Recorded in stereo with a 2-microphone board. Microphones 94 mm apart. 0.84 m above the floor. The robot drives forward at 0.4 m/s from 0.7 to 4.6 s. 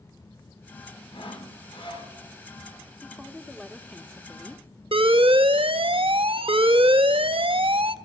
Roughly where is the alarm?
Right.